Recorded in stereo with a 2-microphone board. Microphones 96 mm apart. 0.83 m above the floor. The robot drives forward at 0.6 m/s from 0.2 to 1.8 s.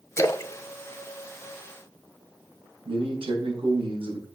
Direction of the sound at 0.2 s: 30° left (ahead or behind).